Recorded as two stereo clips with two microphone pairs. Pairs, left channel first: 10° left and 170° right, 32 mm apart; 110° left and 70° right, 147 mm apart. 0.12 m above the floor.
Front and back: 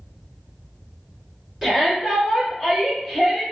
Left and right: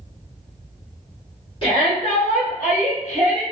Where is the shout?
110° left, 1.4 m; by 3.4 s 105° left, 2 m.